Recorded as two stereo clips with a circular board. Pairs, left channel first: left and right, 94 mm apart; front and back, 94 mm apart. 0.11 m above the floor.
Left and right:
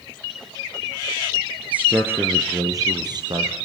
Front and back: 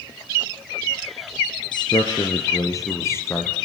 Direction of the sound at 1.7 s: 20° right.